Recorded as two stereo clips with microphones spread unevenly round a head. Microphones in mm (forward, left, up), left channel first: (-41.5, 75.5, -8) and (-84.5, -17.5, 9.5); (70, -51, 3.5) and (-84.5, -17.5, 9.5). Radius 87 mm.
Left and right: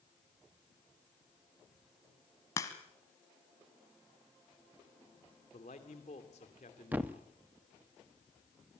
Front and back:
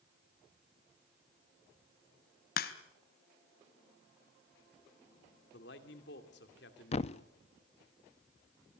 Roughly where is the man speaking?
Ahead.